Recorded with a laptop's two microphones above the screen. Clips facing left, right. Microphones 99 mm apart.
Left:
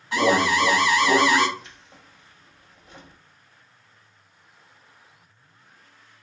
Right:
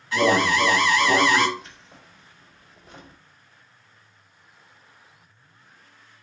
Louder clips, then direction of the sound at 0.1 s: Even; 15° left (ahead or behind).